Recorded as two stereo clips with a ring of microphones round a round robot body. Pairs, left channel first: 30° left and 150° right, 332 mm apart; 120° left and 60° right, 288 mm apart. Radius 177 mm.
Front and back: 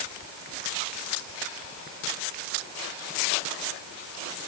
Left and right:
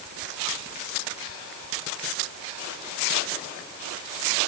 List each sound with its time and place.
Only background noise.